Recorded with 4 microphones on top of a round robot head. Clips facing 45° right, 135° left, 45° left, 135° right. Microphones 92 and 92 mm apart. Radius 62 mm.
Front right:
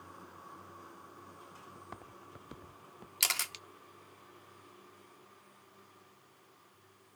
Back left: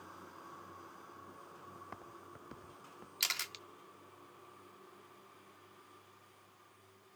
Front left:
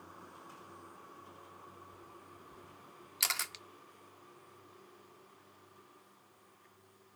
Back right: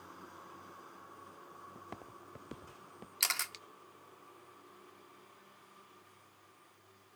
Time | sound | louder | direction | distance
1.8 | footsteps | front right 1 dB, back right 4 dB | 130° right | ?
3.2 | a camera shutter | front right 5 dB, even | 45° right | ?